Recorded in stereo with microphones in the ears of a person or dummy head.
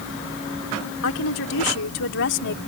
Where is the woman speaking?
80° left; by 2.6 s 65° left (ahead or behind).